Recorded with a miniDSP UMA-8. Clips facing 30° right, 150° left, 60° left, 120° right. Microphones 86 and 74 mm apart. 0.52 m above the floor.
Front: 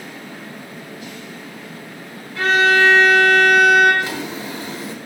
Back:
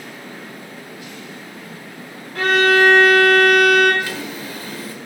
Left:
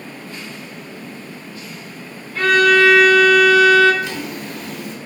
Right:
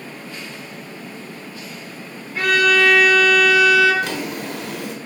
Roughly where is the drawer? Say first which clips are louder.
Front 2 dB, right 1 dB; right.